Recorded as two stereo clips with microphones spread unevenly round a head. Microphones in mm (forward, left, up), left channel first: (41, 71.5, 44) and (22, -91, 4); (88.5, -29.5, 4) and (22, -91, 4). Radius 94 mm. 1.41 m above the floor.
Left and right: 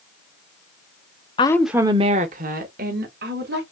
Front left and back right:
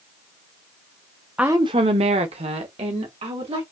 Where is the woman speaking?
140° left, 0.7 m; by 3.6 s 130° right, 3 m.